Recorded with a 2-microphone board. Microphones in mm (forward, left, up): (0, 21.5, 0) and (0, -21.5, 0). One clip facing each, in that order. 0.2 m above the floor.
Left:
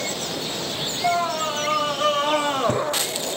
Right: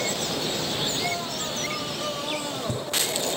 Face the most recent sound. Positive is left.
turn(degrees=55)  # may be behind; listen again after turning